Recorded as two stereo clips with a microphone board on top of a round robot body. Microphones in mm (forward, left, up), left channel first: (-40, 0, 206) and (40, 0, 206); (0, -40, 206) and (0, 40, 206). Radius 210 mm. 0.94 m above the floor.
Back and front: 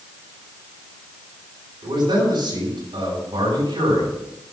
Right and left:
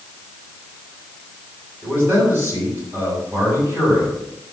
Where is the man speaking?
25° left, 7.5 m.